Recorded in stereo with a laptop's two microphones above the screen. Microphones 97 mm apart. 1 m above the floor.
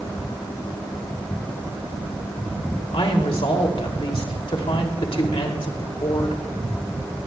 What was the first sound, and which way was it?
A woman speaking, 75° left (ahead or behind).